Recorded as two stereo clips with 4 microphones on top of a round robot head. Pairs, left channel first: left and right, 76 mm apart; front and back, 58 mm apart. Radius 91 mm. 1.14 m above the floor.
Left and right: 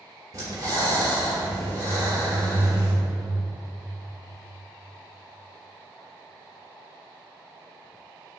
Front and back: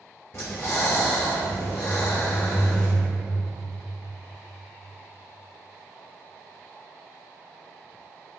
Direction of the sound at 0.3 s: 70° right.